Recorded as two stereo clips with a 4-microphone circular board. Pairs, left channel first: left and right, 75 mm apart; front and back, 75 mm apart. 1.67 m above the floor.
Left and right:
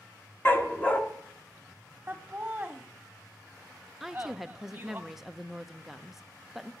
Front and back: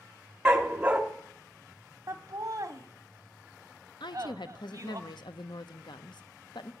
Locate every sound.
0.5 s a dog barking: 115° left, 1.3 m
2.1 s laughter: 155° right, 0.8 m
4.0 s a woman speaking: 5° right, 0.7 m